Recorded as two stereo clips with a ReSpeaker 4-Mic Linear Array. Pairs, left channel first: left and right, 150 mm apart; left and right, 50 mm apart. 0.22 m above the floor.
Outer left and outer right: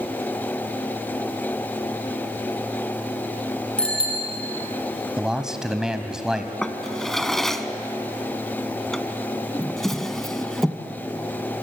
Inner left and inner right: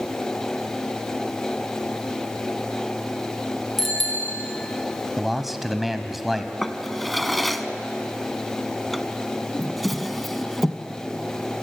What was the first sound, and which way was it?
A bicycle bell, 5° left (ahead or behind).